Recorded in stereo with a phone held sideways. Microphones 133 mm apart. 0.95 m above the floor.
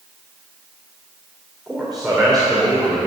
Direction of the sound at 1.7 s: Centre (ahead or behind).